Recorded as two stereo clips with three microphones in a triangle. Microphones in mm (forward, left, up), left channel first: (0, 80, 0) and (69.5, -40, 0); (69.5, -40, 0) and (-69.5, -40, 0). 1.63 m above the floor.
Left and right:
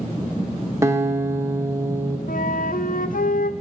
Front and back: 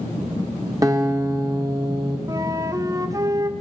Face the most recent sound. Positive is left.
turn(degrees=115)